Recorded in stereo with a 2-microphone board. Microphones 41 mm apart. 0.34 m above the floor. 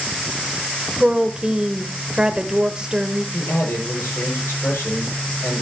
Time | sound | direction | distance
1.0 | a woman speaking | 20° right (ahead or behind) | 1.1 m
3.3 | a man speaking | 70° left (ahead or behind) | 9.5 m